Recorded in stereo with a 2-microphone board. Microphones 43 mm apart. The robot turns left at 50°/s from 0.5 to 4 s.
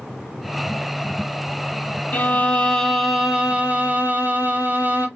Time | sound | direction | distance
2.1 | a violin | 45° left | 1.4 m